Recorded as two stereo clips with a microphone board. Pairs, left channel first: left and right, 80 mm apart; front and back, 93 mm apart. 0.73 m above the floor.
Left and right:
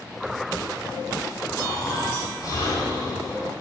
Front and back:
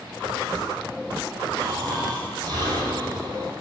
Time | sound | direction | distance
1.6 | snoring | 135° left | 10 m